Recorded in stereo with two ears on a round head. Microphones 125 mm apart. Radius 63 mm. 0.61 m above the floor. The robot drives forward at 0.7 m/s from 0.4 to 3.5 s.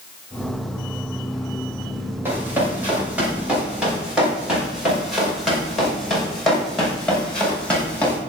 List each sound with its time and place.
2.2 s running footsteps: 15° right (ahead or behind), 7.5 m; by 8.2 s 10° left (ahead or behind), 7.5 m